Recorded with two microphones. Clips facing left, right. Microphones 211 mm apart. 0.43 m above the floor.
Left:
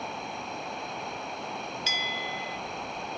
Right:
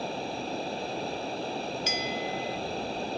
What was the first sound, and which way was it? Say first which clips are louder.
Running water: right 5 dB; 35° right (ahead or behind).